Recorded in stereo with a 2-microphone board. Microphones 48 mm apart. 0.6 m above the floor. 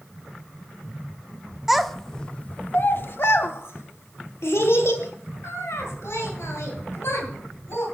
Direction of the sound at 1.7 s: 5° right (ahead or behind).